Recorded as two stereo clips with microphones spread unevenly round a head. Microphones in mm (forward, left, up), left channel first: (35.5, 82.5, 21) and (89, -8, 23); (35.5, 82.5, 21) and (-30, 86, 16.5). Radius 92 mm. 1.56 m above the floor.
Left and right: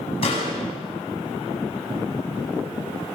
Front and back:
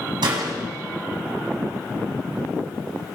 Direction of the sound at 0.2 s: Straight behind.